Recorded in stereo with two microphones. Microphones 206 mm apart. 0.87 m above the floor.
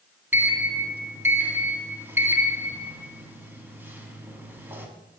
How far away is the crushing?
No crushing in this recording.